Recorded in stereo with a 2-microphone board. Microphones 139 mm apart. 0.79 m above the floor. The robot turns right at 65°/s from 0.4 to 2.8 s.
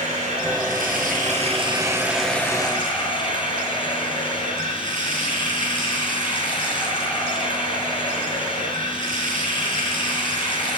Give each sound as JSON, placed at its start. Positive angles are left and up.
{"t": 0.0, "sound": "running water", "azimuth_deg": -120, "distance_m": 8.0}